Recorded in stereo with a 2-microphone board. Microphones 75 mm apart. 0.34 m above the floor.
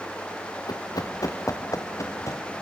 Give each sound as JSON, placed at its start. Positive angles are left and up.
{"t": 0.7, "sound": "running footsteps", "side_deg": 65, "distance_m": 1.6}